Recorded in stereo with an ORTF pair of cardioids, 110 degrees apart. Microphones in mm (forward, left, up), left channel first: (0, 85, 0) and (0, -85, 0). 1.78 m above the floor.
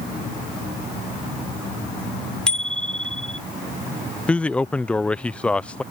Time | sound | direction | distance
2.5 | a bicycle bell | 5° left | ?
4.3 | a man speaking | 5° left | ?